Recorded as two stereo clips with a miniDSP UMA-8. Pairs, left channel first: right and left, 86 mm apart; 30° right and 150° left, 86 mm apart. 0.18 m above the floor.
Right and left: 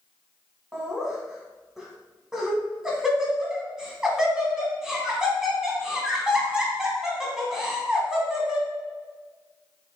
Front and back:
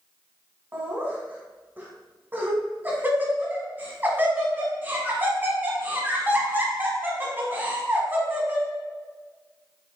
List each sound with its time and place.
0.7 s laughter: 160° left, 1.2 m